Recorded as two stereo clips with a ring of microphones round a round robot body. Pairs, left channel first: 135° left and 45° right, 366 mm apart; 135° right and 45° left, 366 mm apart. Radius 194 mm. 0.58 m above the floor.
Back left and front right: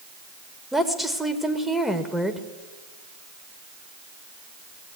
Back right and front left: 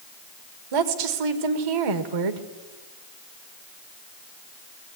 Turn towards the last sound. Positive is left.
turn(degrees=45)